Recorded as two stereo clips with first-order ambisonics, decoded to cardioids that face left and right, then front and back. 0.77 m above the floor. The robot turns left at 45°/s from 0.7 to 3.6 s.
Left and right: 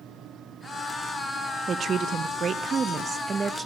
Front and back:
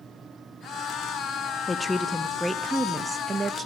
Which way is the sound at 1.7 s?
60° right.